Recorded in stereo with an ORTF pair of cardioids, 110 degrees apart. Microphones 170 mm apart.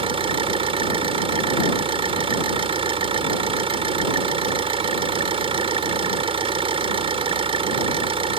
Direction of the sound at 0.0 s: 30° right.